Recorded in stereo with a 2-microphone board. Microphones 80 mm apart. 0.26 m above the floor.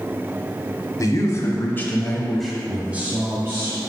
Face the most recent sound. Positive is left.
turn(degrees=-35)  # may be behind; listen again after turning